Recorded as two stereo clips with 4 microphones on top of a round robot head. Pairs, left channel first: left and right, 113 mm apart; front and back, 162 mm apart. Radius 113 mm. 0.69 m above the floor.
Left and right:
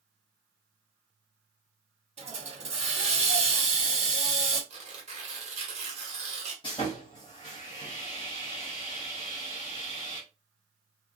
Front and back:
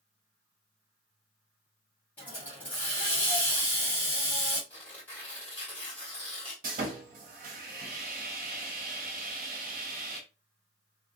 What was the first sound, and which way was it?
A hiss, 80° right.